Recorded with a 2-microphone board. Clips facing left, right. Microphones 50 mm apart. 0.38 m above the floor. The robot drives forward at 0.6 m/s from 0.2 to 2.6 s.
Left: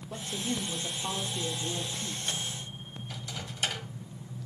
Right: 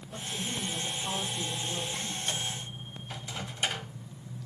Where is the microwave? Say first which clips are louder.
Right 1 dB; 20° right (ahead or behind), 1.7 m.